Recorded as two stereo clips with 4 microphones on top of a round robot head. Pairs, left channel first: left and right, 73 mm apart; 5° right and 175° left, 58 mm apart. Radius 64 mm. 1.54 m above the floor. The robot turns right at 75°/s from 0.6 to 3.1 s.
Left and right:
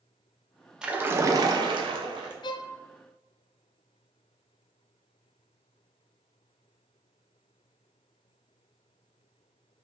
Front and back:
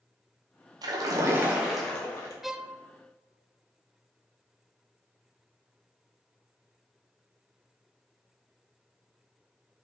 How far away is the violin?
About 0.6 m.